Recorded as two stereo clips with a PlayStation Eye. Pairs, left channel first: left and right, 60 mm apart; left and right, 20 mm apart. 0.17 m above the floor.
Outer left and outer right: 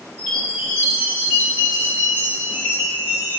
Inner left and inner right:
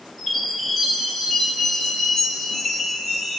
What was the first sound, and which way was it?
A chime, 25° left (ahead or behind).